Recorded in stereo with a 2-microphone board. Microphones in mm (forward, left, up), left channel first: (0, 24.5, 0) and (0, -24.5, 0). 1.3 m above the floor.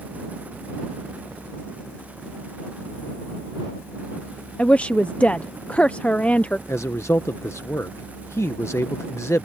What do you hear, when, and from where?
4.6 s a woman speaking: 25° left (ahead or behind)
6.7 s a man speaking: 70° left (ahead or behind)